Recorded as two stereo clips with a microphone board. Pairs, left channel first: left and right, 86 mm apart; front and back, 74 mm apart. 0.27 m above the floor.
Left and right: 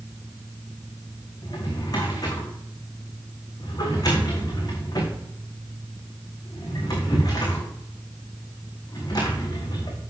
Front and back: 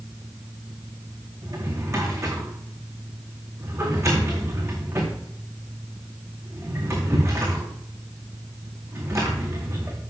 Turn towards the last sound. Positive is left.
turn(degrees=135)